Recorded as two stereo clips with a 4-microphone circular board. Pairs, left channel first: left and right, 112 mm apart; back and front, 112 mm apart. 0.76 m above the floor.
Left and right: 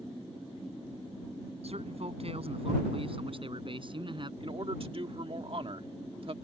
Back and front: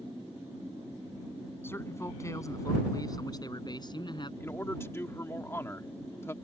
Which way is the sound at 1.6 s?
110° right.